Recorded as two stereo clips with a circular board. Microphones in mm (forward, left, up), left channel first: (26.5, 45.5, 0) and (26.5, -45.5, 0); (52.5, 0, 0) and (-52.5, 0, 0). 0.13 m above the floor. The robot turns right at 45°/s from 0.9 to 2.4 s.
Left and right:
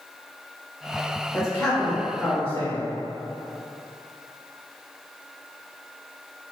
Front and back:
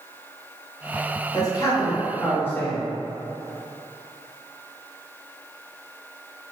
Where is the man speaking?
5° right, 1.6 m; by 2.9 s 45° left, 1.6 m.